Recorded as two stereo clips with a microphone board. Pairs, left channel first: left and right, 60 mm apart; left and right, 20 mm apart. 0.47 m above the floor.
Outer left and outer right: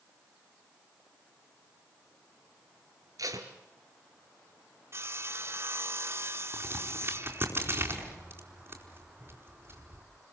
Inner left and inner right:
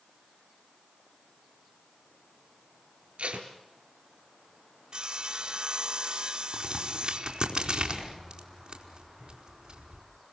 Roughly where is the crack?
Right.